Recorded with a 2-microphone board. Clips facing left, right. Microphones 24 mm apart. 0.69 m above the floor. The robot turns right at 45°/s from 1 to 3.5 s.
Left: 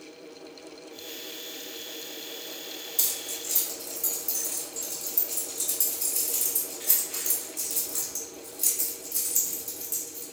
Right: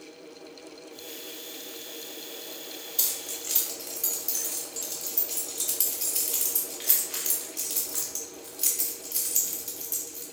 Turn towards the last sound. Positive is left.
turn(degrees=-45)  # may be behind; listen again after turning